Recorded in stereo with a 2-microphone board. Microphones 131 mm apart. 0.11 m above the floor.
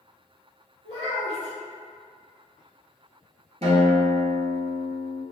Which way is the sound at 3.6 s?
50° right (ahead or behind).